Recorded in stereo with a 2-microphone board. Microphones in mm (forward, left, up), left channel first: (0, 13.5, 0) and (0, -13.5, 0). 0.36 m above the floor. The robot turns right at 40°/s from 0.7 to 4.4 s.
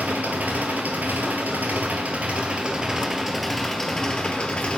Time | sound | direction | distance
0.0 | an engine running | 105° right | 2 m